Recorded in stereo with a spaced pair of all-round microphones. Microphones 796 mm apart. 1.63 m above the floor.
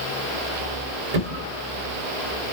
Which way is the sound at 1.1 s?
50° right (ahead or behind).